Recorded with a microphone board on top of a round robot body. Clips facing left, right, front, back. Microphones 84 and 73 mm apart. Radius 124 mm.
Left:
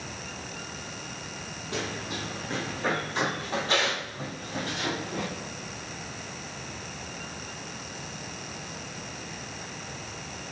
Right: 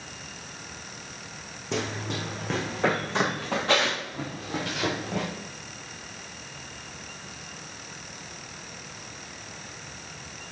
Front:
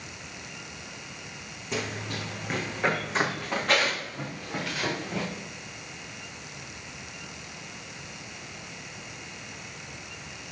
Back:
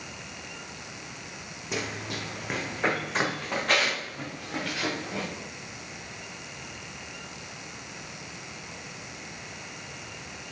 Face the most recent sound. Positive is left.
turn(degrees=-90)